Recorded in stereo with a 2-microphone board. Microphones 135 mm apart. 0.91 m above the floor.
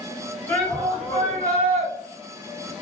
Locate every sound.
0.5 s a shout: 15° left (ahead or behind), 2.0 m; by 1.9 s 10° left (ahead or behind), 3 m